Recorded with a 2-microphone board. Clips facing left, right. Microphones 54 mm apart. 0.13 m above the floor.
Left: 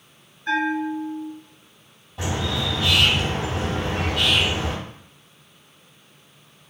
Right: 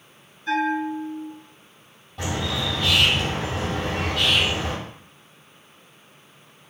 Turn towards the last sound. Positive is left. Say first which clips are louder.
# left 1 dB
turn(degrees=5)  # may be behind; listen again after turning